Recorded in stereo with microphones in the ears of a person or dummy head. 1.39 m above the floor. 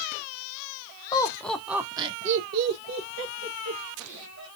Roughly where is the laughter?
Centre.